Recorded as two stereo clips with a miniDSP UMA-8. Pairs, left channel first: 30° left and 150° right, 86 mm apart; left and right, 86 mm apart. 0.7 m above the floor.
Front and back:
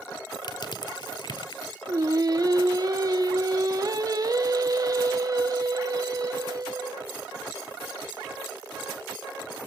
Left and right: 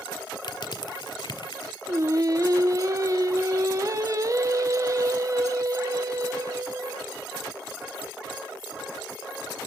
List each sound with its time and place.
0.4 s crushing: 65° left, 1.6 m
1.9 s singing: 125° right, 1.1 m